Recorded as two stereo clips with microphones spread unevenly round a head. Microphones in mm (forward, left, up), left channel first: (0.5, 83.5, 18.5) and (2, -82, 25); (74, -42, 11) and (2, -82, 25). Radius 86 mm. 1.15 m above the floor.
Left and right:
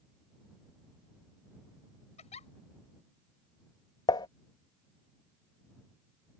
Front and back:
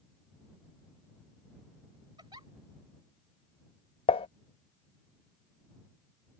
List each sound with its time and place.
2.2 s a giggle: 145° left
4.1 s dishes clattering: 20° left